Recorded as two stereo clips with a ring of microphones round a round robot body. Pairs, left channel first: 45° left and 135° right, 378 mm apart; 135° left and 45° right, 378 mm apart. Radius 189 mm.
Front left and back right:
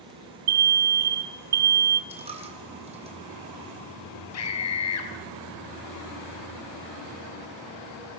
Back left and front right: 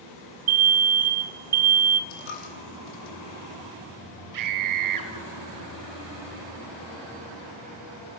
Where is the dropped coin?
150° left, 4.5 m.